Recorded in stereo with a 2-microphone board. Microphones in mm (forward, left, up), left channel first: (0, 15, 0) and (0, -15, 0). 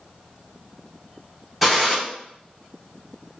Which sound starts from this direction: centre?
A gunshot, at 1.6 s.